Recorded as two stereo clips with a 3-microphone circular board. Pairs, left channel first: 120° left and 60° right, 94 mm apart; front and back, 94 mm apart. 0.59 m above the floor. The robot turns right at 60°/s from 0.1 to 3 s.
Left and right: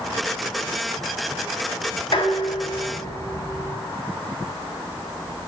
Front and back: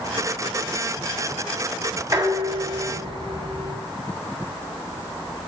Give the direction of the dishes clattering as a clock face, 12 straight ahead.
8 o'clock.